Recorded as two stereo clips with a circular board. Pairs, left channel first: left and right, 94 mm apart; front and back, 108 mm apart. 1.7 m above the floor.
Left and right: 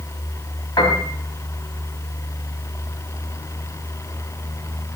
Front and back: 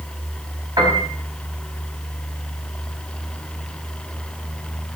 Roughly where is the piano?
Behind left.